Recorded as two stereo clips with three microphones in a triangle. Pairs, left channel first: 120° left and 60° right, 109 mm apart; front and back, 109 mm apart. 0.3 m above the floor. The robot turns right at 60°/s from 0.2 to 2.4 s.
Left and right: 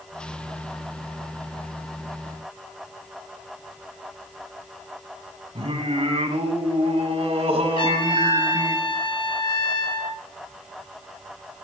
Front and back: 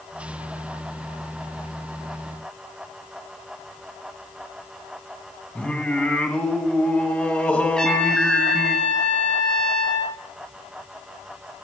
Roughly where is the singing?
Right.